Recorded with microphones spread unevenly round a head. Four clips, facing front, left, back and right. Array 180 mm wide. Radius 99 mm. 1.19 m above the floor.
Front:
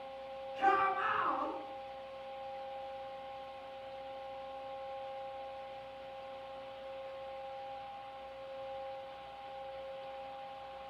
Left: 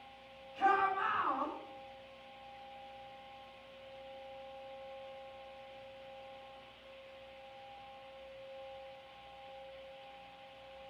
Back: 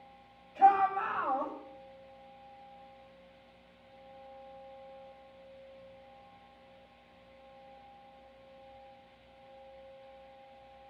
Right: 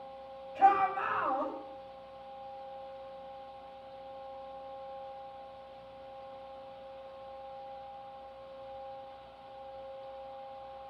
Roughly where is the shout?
Behind right.